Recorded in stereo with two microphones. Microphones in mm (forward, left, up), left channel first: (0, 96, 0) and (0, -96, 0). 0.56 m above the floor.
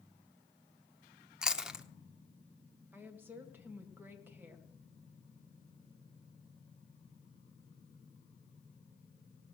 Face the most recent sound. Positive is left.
turn(degrees=-10)  # may be behind; listen again after turning